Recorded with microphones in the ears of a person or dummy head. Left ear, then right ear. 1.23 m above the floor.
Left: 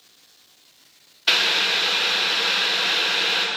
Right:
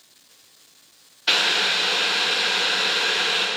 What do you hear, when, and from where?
1.3 s boiling: 5° left (ahead or behind), 0.8 m